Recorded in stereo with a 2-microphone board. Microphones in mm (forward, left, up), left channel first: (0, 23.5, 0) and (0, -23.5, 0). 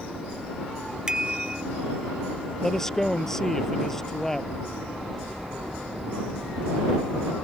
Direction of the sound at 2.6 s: 10° left (ahead or behind).